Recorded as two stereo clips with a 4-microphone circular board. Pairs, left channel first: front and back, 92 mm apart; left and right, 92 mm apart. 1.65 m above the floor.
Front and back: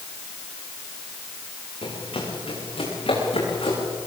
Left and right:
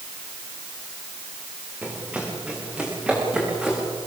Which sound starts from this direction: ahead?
Running footsteps, at 1.8 s.